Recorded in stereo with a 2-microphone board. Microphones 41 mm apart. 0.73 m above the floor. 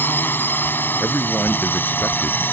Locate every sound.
0.0 s a drone: 55° left (ahead or behind)
1.0 s a man speaking: 45° left (ahead or behind)